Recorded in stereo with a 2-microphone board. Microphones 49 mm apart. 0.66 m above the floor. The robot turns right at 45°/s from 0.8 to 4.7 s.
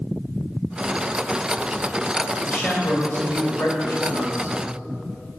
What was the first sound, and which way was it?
A man speaking, 40° left.